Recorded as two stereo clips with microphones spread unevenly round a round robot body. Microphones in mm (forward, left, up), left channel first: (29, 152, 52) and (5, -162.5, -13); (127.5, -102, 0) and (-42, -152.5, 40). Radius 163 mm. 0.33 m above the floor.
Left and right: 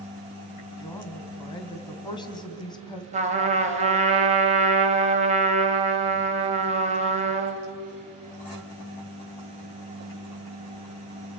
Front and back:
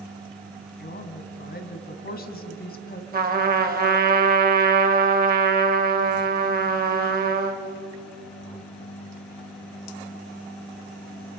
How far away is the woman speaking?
About 2 m.